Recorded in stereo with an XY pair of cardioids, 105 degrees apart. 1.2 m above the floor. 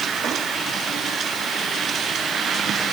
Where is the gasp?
No gasp in this recording.